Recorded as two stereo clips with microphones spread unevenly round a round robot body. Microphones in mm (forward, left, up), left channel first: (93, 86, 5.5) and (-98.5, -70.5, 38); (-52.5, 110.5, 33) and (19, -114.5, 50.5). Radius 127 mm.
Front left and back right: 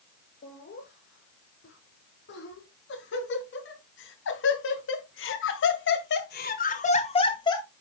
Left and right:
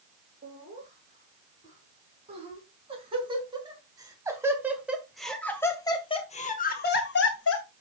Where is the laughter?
10° right, 6.5 m; by 7.7 s 110° left, 2 m.